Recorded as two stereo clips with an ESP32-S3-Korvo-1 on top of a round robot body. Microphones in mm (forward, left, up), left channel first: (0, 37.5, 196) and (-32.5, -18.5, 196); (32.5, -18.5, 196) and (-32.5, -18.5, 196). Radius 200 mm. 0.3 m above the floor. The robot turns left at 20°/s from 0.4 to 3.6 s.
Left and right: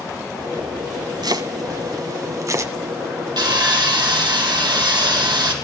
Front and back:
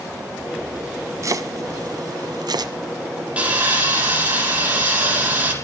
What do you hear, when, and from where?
1.2 s chopping: 135° right, 1.5 m; by 2.7 s 165° right, 1.5 m
3.4 s sawing: 110° right, 6 m; by 5.5 s 115° right, 6 m